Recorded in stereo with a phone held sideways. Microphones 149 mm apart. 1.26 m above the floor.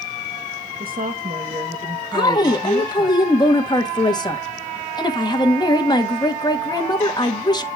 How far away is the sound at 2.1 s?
About 1.4 m.